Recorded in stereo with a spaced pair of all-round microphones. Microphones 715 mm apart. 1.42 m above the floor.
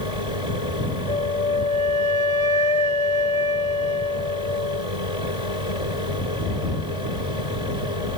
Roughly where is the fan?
Left.